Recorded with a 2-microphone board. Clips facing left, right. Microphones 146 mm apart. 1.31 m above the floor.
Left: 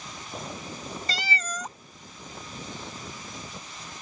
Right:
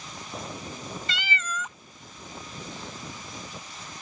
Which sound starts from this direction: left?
A cat meowing, at 1.1 s.